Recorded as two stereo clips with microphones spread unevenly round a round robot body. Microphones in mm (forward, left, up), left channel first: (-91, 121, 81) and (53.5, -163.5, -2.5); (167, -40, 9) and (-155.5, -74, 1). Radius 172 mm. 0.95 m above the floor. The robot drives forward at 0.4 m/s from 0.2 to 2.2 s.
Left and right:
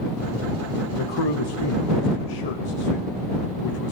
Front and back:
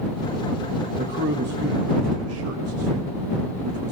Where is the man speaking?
120° left, 1.2 m; by 3.9 s 140° left, 1.5 m.